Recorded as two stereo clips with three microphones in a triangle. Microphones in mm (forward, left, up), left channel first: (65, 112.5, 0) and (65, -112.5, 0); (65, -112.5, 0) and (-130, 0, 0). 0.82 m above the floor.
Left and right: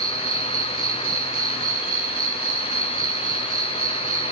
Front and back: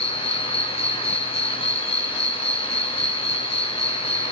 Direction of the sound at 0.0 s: 95° right.